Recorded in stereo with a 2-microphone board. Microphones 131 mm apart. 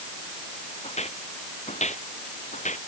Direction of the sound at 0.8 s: 55° left (ahead or behind).